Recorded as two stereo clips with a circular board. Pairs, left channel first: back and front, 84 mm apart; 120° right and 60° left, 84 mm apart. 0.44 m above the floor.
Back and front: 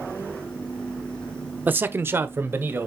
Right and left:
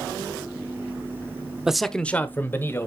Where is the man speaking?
10° right, 0.7 m; by 2.9 s 60° right, 1.8 m.